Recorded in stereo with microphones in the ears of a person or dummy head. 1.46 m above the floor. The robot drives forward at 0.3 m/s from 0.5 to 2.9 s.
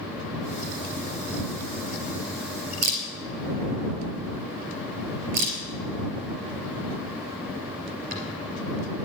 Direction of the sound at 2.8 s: 50° right (ahead or behind).